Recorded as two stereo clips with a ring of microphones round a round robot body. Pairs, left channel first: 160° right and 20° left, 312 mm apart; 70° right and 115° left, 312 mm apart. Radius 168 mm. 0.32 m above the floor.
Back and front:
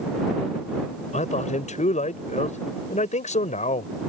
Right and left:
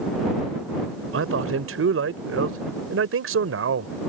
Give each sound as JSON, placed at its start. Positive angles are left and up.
{"t": 1.1, "sound": "a man speaking", "azimuth_deg": 140}